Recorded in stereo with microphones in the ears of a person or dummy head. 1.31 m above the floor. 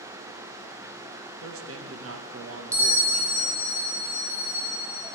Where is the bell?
15° right (ahead or behind), 2 m.